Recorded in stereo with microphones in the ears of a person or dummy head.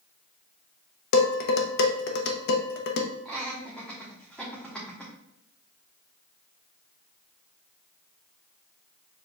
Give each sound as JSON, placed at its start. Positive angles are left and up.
{"t": 1.1, "sound": "dishes clattering", "side_deg": 65, "distance_m": 0.8}
{"t": 3.2, "sound": "laughter", "side_deg": 5, "distance_m": 1.1}